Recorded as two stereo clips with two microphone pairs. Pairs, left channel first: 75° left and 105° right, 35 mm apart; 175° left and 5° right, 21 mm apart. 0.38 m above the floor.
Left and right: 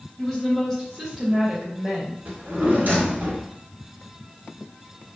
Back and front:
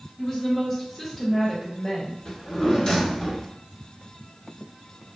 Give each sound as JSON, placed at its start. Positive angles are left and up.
{"t": 0.2, "sound": "a woman speaking", "azimuth_deg": 135, "distance_m": 1.3}
{"t": 2.2, "sound": "a drawer", "azimuth_deg": -125, "distance_m": 1.3}